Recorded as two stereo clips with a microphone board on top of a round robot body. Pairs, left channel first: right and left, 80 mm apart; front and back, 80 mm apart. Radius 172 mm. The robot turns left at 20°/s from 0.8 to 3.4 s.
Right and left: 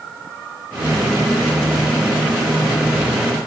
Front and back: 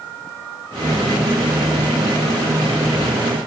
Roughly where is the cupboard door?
No cupboard door in this recording.